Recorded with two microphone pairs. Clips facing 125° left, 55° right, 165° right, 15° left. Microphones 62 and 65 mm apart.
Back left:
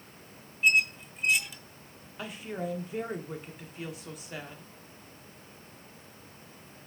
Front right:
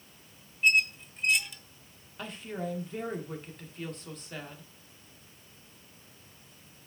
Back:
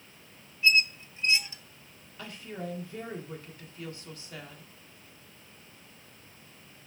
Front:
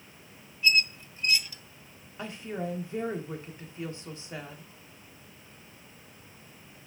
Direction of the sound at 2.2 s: 50° left.